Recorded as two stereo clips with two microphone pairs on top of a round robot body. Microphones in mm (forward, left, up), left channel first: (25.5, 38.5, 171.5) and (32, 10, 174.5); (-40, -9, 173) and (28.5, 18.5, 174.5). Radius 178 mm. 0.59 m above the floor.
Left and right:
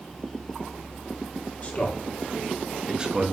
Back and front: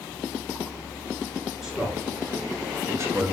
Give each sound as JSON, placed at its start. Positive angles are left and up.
{"t": 1.6, "sound": "a man speaking", "azimuth_deg": 110, "distance_m": 1.5}